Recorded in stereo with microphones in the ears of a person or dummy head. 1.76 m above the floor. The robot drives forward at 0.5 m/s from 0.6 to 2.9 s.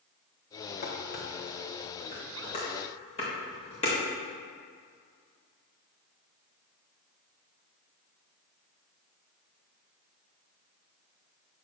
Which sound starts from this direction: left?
Dishes clattering, at 0.8 s.